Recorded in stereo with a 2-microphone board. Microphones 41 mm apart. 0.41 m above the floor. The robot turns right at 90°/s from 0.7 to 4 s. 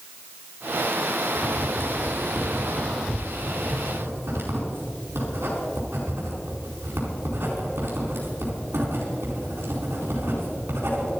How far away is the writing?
About 4.5 m.